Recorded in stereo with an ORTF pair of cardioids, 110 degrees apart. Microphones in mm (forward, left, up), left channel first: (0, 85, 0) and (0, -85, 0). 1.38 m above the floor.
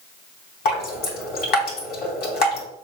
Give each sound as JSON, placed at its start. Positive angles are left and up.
{"t": 0.7, "sound": "dripping", "azimuth_deg": 70, "distance_m": 3.0}